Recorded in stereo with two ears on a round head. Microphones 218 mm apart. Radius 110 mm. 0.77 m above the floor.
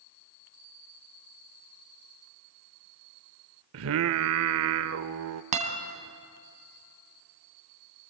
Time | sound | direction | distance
3.7 | singing | 60° right (ahead or behind) | 0.7 m
5.5 | a guitar | 30° right (ahead or behind) | 2.5 m